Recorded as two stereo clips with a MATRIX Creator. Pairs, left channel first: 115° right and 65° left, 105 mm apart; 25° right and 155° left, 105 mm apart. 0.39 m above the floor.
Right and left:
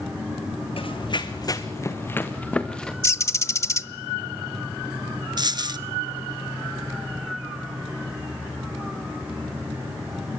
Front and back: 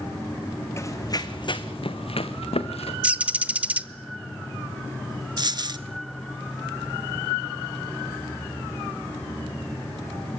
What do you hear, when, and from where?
0.8 s running footsteps: 85° right, 1.5 m; by 2.9 s 30° right, 2.5 m
3.0 s a bird: 140° right, 0.9 m
5.4 s a dropped coin: 115° left, 1.0 m